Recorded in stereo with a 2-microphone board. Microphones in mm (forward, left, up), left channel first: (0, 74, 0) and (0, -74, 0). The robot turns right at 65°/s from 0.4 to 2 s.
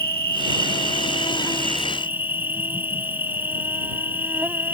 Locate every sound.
0.0 s an insect: 90° left; by 4.8 s 165° right